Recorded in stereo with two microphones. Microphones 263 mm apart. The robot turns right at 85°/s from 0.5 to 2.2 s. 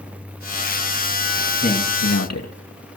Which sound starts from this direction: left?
A man speaking, at 1.6 s.